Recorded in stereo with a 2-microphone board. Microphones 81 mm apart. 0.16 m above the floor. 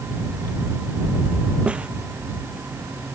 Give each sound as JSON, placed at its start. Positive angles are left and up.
{"t": 1.7, "sound": "a snare drum", "side_deg": -15}